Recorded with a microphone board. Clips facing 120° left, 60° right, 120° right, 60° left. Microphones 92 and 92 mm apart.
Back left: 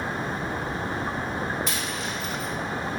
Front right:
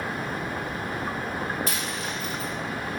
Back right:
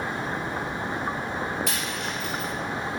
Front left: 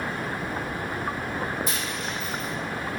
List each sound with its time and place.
1.7 s a dropped coin: 100° right, 3.5 m